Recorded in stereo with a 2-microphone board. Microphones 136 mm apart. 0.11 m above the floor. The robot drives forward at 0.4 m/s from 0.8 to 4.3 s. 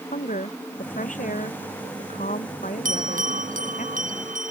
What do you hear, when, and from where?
0.1 s a woman speaking: 80° left
2.9 s a bell: 85° right; by 4.5 s 80° right